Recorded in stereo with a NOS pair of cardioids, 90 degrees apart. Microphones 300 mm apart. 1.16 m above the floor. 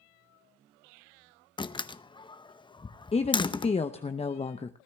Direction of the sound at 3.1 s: 20° left.